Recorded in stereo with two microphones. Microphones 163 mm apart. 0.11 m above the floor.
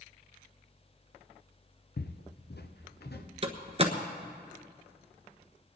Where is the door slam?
40° right (ahead or behind), 1.1 m.